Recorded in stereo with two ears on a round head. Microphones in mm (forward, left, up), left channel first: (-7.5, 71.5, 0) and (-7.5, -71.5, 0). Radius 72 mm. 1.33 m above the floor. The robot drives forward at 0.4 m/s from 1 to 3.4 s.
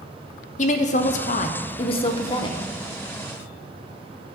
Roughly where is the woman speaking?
Left.